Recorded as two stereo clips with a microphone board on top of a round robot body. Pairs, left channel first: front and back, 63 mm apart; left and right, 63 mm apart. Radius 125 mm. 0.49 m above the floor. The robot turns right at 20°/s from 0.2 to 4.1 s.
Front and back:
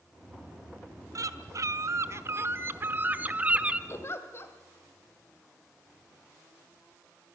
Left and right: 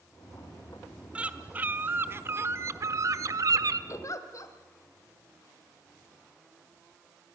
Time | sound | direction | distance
1.1 | a bird | 160° right | 1.2 m
3.9 | a giggle | 45° left | 1.9 m